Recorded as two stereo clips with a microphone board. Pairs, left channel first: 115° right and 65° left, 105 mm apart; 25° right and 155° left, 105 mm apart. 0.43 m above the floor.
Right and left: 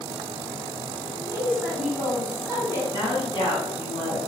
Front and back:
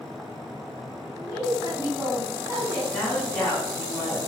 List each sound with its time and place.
1.2 s a woman speaking: 130° left, 1.4 m
2.9 s a woman speaking: 100° right, 1.6 m